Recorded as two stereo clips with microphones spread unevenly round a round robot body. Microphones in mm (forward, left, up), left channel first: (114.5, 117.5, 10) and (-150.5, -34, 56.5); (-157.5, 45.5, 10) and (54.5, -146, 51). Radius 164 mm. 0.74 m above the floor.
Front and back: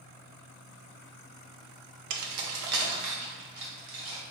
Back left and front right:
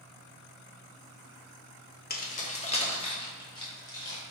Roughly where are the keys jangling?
Behind.